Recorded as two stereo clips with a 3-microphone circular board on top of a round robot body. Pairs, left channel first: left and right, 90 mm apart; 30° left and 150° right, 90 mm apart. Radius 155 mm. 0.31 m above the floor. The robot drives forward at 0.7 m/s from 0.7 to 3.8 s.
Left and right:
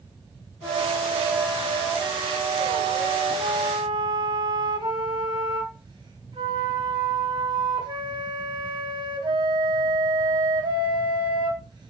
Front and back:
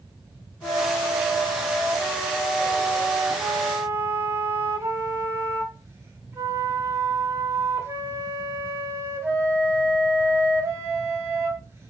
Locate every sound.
0.6 s a flute: 30° right, 2.5 m; by 11.9 s 95° right, 1.4 m